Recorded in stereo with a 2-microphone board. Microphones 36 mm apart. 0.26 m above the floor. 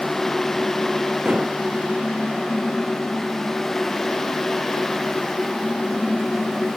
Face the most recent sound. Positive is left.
turn(degrees=-25)  # may be behind; listen again after turning